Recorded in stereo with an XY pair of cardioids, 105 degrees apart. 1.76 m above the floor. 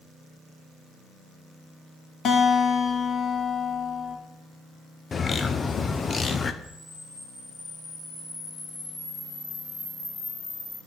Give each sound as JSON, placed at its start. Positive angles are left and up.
{"t": 2.2, "sound": "a guitar", "azimuth_deg": 60, "distance_m": 2.0}
{"t": 5.1, "sound": "a bird", "azimuth_deg": 35, "distance_m": 0.8}
{"t": 6.6, "sound": "a camera shutter", "azimuth_deg": 50, "distance_m": 5.5}